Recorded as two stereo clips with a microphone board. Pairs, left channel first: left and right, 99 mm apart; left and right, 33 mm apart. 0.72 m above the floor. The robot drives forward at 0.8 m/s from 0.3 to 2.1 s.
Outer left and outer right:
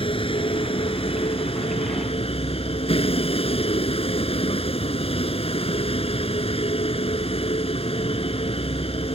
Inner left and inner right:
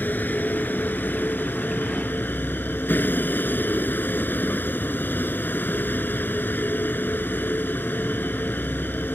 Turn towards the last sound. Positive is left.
turn(degrees=75)  # may be behind; listen again after turning